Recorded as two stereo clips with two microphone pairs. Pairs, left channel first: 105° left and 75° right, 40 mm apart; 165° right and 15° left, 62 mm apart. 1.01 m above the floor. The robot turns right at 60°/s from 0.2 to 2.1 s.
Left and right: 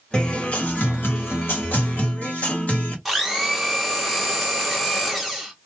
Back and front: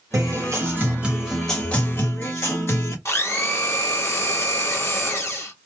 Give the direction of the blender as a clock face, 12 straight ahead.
5 o'clock.